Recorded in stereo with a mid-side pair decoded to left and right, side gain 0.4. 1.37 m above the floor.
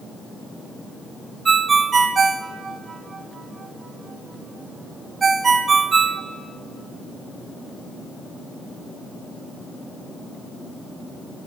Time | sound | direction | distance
1.4 | a ringtone | 45° right | 0.8 m